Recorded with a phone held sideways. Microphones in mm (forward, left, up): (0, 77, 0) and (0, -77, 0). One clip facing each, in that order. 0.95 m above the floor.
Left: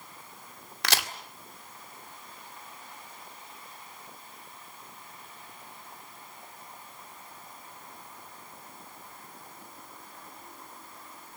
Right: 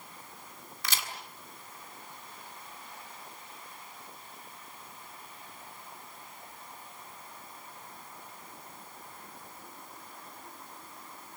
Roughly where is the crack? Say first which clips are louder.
Left 7 dB; left.